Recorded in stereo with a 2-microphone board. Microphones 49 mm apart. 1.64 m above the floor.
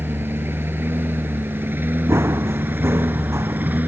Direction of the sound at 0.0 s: 55° right (ahead or behind).